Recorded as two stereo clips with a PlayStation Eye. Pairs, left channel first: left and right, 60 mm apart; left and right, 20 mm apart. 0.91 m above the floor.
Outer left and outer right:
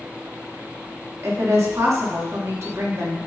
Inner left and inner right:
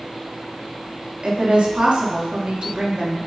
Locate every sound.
1.2 s a woman speaking: 55° right (ahead or behind), 1.5 m